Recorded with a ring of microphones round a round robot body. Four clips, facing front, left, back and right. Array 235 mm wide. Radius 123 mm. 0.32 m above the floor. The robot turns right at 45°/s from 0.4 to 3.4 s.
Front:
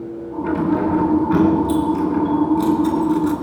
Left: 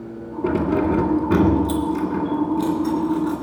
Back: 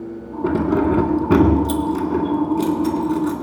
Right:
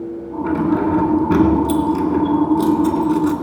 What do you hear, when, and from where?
0.4 s keys jangling: 145° left, 2 m; by 3.4 s 85° right, 2 m